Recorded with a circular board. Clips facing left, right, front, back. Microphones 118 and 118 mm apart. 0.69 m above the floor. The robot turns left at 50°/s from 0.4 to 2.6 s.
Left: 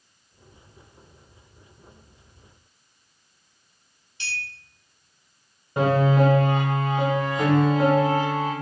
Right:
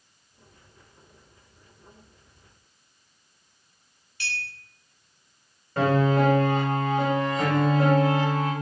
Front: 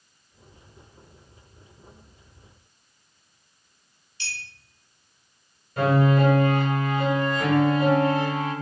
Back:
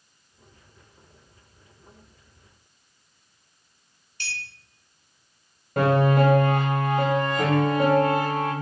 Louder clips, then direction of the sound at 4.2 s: Right 1 dB, back 2 dB; 150° left.